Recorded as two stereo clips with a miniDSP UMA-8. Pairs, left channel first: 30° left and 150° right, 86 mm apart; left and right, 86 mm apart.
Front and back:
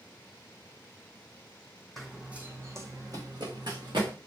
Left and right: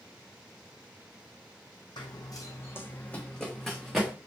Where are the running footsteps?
120° left, 1.0 m; by 4.1 s 170° right, 1.7 m.